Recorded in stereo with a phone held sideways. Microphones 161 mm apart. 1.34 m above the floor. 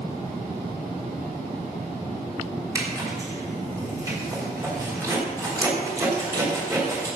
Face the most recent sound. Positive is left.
turn(degrees=-20)  # may be behind; listen again after turning